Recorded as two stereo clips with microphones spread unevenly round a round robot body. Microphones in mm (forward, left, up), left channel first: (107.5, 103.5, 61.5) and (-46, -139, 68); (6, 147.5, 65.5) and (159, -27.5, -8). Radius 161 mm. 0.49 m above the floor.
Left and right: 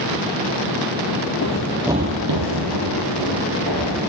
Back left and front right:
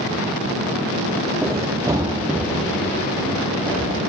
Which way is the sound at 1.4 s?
40° left.